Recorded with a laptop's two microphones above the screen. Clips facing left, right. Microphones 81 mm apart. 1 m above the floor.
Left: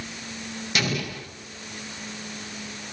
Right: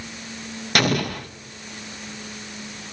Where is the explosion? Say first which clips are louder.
Right 7 dB; 55° right (ahead or behind), 0.5 m.